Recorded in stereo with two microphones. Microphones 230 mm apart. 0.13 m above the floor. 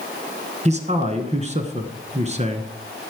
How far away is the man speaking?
About 1.3 m.